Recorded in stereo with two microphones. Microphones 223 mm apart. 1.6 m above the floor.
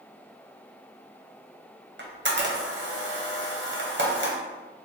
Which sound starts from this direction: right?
A camera shutter, at 2.0 s.